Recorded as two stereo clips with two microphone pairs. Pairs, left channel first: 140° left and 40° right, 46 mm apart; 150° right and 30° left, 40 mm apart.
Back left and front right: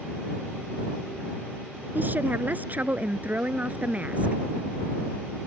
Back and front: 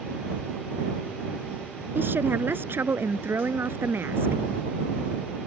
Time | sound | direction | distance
1.9 | a woman speaking | 5° left | ?